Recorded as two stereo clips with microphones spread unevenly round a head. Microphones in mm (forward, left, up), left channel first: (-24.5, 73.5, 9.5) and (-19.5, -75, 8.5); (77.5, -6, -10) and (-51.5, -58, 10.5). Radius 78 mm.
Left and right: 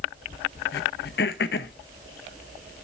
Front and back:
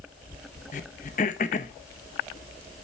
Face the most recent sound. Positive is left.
turn(degrees=65)